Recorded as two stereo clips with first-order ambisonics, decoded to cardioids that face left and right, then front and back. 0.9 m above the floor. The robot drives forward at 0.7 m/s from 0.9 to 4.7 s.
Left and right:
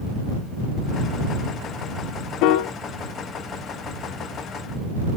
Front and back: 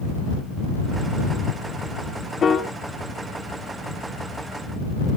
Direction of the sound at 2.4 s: 65° left.